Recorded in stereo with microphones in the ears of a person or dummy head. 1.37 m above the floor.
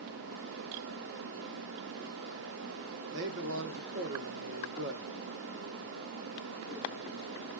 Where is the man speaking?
55° right (ahead or behind), 1.6 m.